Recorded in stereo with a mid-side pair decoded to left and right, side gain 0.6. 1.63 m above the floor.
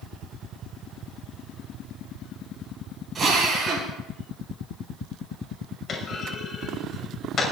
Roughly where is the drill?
Ahead right.